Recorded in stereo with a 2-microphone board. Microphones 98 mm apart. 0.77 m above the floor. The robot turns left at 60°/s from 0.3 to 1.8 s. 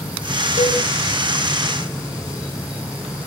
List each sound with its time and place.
0.6 s a cowbell: 35° left (ahead or behind), 7 m; by 0.8 s 15° left (ahead or behind), 7 m